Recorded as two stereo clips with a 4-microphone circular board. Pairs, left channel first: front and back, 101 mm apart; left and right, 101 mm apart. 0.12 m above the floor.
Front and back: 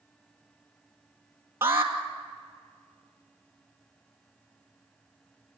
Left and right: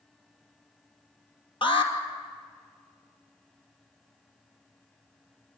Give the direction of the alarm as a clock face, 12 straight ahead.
8 o'clock.